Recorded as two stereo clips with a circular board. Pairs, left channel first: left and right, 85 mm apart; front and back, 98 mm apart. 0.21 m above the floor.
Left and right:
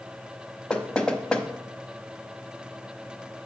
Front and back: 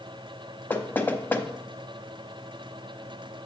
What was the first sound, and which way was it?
Knocking, 30° left.